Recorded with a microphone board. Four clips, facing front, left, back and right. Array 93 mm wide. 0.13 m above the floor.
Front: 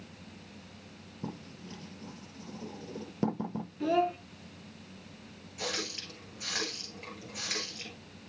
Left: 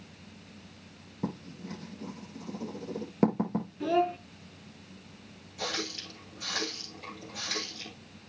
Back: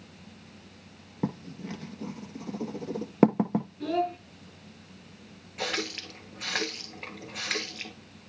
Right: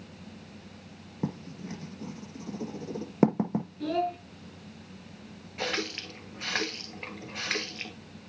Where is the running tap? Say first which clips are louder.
Right 3 dB, back 5 dB; 130° right, 1.8 m.